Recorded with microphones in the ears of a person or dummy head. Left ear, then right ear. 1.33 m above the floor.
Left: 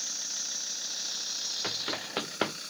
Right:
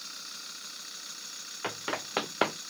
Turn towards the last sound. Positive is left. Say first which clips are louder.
# left 2 dB
turn(degrees=-25)  # may be behind; listen again after turning